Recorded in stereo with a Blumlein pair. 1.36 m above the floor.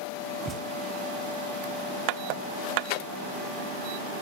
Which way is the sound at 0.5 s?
20° right.